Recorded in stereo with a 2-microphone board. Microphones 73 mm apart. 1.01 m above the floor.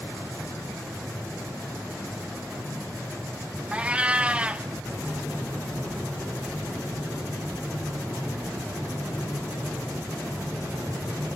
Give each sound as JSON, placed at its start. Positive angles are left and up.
{"t": 3.7, "sound": "a cat meowing", "side_deg": -15, "distance_m": 0.8}